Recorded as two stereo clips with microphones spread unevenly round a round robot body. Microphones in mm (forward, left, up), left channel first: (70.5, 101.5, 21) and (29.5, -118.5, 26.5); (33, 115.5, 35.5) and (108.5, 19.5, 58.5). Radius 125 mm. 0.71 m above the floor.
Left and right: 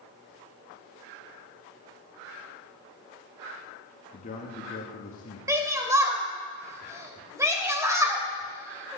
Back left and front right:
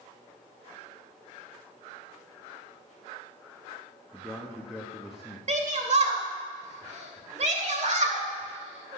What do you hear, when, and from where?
4.1 s a man speaking: 45° left, 1.4 m
5.5 s a shout: 25° right, 2.5 m